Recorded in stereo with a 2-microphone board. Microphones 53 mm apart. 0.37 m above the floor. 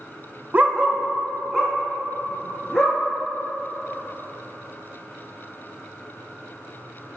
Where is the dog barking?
35° right (ahead or behind), 0.5 m; by 3.0 s 5° left (ahead or behind), 3 m.